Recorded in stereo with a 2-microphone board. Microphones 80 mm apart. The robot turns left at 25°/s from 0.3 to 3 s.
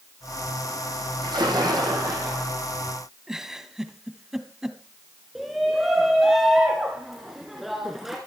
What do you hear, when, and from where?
1.2 s a splash: 105° right, 5 m; by 2.5 s 140° right, 5 m
3.3 s a giggle: 5° right (ahead or behind), 1.2 m
5.3 s a shout: centre (ahead or behind), 2 m